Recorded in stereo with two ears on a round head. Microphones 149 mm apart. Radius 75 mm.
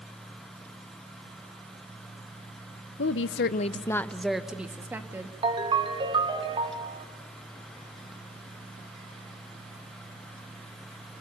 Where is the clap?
I don't hear a clap.